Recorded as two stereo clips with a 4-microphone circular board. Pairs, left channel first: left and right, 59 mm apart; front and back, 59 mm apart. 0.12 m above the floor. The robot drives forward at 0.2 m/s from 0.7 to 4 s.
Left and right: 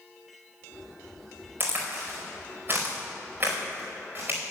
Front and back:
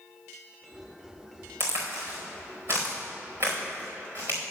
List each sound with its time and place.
1.6 s a crack: 140° right, 4 m; by 4.4 s 145° right, 4 m